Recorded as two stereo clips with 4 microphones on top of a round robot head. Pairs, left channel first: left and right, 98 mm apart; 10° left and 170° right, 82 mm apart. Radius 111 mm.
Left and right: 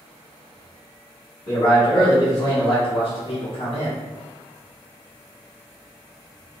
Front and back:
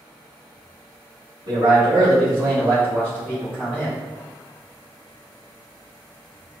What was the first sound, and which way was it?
A man speaking, 155° left.